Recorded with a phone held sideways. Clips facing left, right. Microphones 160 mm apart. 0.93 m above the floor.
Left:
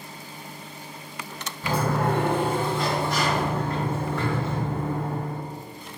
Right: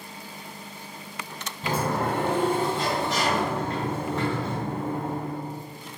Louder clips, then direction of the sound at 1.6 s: Left 2 dB; 25° right (ahead or behind).